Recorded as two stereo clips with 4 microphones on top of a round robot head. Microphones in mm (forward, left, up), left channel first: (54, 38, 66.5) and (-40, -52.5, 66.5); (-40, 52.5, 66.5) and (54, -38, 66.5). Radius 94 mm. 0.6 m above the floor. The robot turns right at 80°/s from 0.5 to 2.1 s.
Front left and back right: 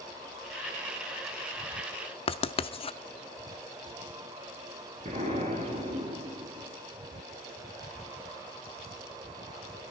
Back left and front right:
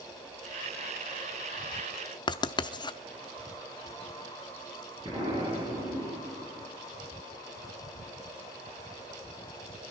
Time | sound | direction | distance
2.3 | writing | 85° left | 0.8 m
5.0 | an explosion | 100° right | 6.5 m